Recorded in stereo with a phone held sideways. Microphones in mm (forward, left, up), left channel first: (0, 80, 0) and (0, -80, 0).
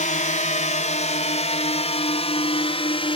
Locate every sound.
0.0 s a drone: 55° left (ahead or behind); by 3.2 s 35° left (ahead or behind)